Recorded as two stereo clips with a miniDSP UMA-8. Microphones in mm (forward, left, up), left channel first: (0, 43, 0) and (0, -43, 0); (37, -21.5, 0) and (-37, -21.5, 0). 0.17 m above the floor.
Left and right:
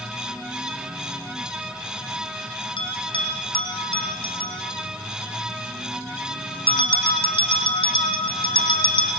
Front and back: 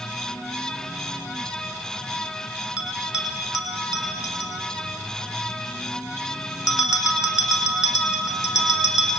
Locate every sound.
2.8 s a bell: 100° left, 5.5 m